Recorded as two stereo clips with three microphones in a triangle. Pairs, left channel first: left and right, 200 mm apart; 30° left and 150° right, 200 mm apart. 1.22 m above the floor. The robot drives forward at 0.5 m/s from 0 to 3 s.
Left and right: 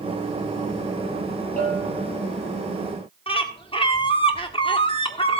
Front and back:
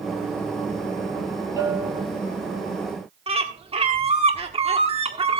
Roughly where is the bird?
Behind left.